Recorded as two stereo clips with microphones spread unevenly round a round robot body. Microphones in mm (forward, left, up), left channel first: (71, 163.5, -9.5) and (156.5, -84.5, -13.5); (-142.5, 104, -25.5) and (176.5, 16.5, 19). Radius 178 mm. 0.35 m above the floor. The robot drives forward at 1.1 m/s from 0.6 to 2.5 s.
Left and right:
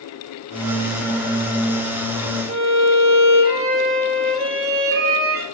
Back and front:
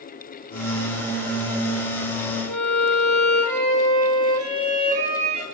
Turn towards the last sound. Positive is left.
turn(degrees=-30)